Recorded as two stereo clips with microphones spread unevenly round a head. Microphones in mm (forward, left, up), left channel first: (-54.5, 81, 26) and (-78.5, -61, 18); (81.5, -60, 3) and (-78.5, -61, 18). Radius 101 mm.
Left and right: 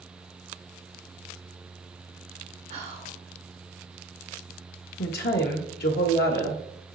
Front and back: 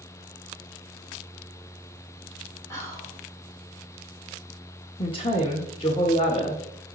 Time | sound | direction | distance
2.7 | whispering | 70° right | 3 m
5.0 | a woman speaking | 65° left | 1.0 m